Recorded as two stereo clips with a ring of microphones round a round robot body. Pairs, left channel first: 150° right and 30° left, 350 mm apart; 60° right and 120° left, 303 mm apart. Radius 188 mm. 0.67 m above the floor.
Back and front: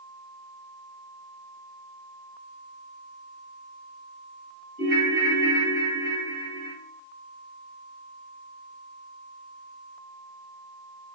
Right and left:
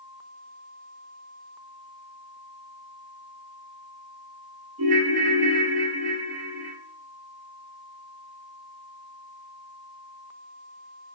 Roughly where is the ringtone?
Left.